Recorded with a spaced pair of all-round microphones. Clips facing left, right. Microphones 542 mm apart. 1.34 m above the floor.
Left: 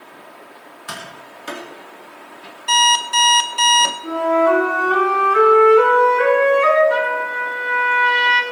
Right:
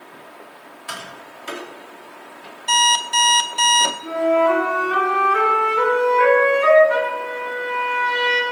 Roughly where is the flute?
Right.